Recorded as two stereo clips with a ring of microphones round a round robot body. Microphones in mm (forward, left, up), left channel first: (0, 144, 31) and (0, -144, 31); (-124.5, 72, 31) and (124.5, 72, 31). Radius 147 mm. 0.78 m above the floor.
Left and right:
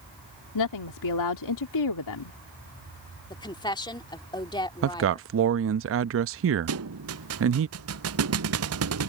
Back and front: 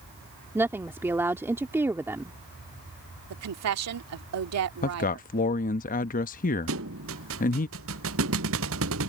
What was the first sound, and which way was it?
A woman speaking, 80° left.